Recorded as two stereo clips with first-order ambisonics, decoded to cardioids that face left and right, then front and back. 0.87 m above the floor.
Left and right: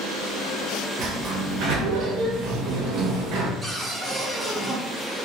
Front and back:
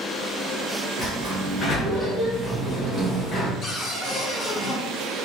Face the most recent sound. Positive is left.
turn(degrees=-15)